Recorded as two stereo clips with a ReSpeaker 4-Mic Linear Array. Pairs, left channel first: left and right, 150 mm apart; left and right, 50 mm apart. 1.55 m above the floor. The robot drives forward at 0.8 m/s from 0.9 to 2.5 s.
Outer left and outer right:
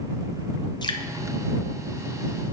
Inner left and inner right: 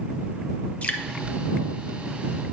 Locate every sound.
0.8 s dripping: 30° left (ahead or behind), 0.6 m; by 1.0 s 25° left (ahead or behind), 0.6 m